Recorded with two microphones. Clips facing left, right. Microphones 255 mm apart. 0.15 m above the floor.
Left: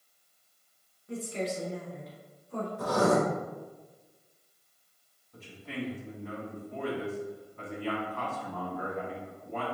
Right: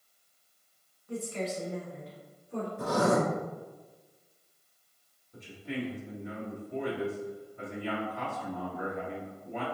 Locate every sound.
1.1 s a woman speaking: 25° left (ahead or behind), 1.2 m; by 2.7 s 15° right (ahead or behind), 1.5 m
2.8 s writing: 25° right (ahead or behind), 1.5 m
5.3 s a man speaking: 15° right (ahead or behind), 1.2 m